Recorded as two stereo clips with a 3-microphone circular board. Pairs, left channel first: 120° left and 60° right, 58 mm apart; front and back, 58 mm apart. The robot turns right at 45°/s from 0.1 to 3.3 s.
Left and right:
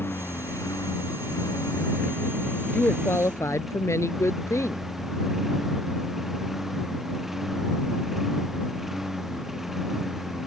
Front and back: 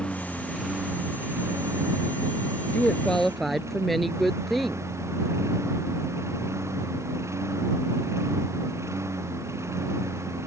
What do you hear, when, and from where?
0.0 s a lawn mower: 70° left; by 10.5 s 145° right
2.7 s a woman speaking: 65° left; by 4.8 s 90° left